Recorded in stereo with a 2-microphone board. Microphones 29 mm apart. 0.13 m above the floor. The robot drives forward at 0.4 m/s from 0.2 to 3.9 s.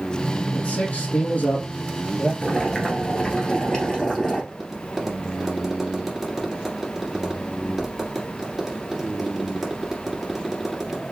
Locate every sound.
0.5 s a man speaking: 55° left (ahead or behind), 3 m
2.4 s boiling: 35° left (ahead or behind), 1.6 m; by 4.4 s 30° left (ahead or behind), 2 m
4.5 s tapping: centre (ahead or behind), 2.5 m